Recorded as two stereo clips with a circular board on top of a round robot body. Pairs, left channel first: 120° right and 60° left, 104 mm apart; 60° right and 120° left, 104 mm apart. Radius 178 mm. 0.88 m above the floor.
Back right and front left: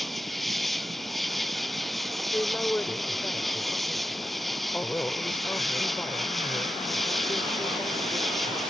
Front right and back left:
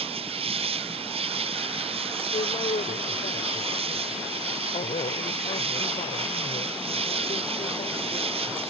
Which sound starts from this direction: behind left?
An insect, at 0.0 s.